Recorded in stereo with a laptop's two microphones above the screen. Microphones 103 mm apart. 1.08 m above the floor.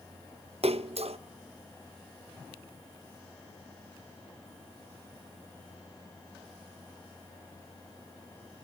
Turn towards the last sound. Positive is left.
turn(degrees=-70)  # may be behind; listen again after turning